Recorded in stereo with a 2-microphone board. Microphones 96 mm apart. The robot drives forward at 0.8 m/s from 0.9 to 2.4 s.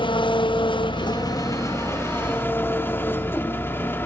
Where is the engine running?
55° left (ahead or behind), 0.8 m; by 4.1 s 20° left (ahead or behind), 1.7 m.